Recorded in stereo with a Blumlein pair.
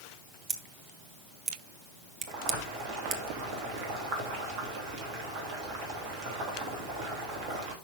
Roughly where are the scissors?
Ahead.